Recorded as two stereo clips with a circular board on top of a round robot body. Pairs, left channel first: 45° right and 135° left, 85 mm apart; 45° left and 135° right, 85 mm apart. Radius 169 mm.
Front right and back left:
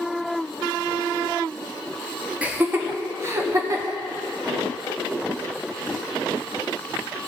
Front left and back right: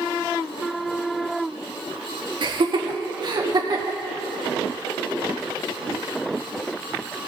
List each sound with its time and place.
2.4 s laughter: 150° right, 1.2 m; by 4.0 s 175° right, 1.8 m